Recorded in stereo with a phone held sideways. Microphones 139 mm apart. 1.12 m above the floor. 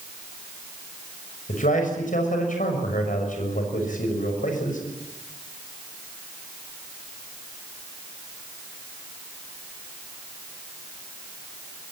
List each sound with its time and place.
1.5 s a man speaking: 70° left (ahead or behind), 6 m